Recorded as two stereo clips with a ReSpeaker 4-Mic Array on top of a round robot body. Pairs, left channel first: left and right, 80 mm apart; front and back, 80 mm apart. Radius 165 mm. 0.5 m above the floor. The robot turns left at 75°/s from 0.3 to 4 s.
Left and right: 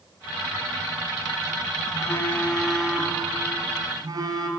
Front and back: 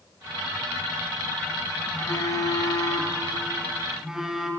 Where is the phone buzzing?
55° left, 1.2 m; by 4.5 s 100° right, 1.2 m.